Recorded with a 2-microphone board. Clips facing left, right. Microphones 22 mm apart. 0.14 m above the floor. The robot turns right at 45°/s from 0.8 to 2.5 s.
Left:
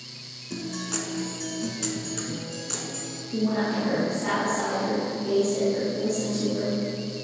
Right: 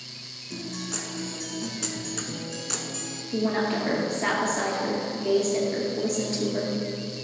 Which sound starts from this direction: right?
A woman speaking, at 3.3 s.